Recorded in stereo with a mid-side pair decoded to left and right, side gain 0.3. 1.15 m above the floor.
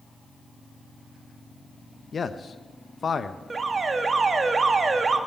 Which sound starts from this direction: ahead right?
An alarm, at 3.5 s.